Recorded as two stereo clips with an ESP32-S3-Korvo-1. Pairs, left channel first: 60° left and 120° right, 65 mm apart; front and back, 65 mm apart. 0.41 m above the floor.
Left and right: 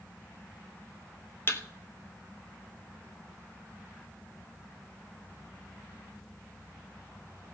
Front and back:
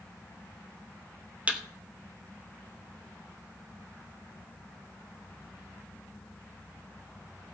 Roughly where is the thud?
Left.